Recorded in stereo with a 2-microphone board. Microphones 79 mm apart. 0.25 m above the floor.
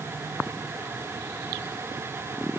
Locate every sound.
Only background noise.